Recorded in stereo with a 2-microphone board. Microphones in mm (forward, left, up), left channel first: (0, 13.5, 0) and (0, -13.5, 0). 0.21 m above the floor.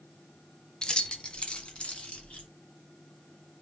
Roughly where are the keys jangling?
Left.